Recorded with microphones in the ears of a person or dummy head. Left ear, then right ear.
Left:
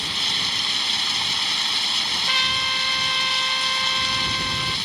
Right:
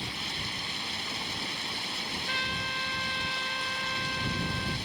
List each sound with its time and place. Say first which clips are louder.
0.0 s running water: left 11 dB; 35° left (ahead or behind)
2.3 s a trumpet: left 9 dB; 75° left (ahead or behind)